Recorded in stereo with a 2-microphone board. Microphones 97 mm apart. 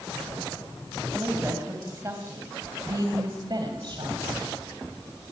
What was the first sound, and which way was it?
A woman speaking, 20° right (ahead or behind).